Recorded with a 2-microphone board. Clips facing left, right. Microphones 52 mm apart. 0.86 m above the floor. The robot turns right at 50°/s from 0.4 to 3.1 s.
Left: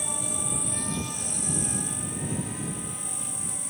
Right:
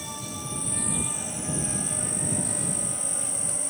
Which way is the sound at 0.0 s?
160° left.